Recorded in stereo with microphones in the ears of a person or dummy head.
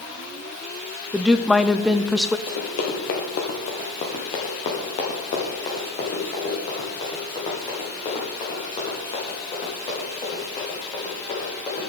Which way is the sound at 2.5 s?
50° left (ahead or behind).